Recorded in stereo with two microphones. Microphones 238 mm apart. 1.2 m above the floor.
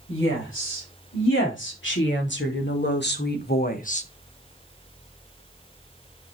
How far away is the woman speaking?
About 5 m.